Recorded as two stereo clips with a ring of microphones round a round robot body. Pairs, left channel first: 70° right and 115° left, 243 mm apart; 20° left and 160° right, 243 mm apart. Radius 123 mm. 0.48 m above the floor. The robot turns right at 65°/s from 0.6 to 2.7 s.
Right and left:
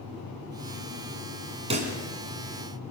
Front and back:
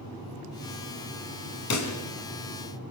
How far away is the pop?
About 2.5 m.